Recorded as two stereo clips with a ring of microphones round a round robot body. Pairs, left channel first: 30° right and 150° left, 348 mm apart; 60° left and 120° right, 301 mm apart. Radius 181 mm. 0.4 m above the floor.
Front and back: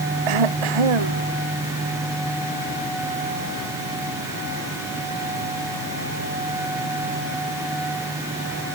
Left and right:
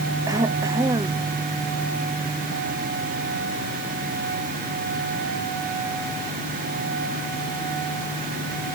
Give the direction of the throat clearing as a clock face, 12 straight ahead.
7 o'clock.